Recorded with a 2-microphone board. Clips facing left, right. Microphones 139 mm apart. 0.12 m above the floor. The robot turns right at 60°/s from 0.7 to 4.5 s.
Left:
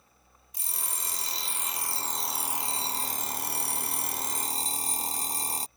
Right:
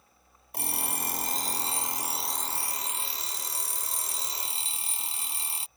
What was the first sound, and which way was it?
An alarm clock, 95° right.